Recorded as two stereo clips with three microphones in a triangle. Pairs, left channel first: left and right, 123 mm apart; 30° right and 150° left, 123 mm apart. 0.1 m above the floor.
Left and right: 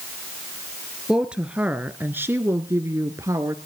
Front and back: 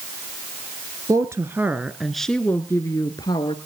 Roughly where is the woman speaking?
Behind.